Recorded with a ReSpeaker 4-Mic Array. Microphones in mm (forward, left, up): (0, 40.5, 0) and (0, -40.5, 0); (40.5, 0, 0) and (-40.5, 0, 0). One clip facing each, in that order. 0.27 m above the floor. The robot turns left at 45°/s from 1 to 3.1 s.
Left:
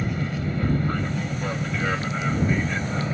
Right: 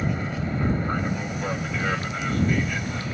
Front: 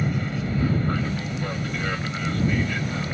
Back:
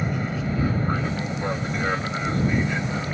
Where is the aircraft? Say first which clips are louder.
Even, even; 140° right; by 3.1 s 125° left.